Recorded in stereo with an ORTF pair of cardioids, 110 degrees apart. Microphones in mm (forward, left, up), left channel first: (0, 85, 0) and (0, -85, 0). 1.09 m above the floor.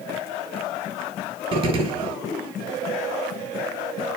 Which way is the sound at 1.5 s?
30° right.